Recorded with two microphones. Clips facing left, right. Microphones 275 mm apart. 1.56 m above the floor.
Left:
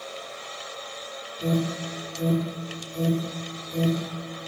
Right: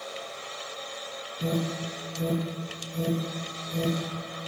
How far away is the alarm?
About 2.5 m.